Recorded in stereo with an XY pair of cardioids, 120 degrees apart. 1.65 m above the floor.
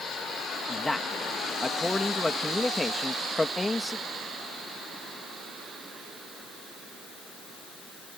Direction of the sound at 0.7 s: 10° left.